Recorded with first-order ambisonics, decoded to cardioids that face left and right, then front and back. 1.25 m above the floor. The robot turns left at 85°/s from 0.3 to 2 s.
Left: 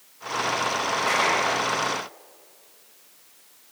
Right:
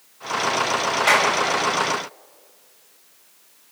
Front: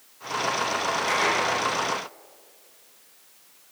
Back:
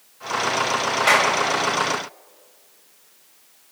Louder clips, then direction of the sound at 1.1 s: Right 5 dB, back 8 dB; 145° right.